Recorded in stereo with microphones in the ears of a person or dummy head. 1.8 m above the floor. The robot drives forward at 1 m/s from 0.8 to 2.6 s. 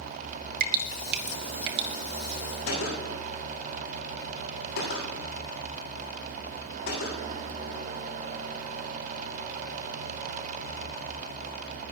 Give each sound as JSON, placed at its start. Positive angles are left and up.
{"t": 0.6, "sound": "dripping", "side_deg": -55, "distance_m": 1.8}
{"t": 2.7, "sound": "a gunshot", "side_deg": 55, "distance_m": 9.0}